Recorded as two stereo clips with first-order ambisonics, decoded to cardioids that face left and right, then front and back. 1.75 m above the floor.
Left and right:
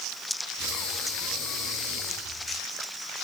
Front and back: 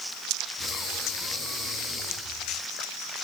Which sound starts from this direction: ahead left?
Breathing, at 0.6 s.